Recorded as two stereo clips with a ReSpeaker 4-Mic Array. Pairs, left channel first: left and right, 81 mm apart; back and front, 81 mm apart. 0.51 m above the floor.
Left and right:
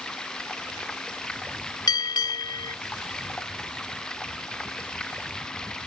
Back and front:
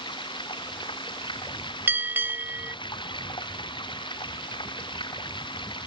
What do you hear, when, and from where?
0.0 s running water: 170° left
1.9 s a bell: 65° left